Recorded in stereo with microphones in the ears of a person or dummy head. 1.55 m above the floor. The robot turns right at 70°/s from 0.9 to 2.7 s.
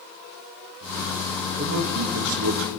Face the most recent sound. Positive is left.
turn(degrees=-60)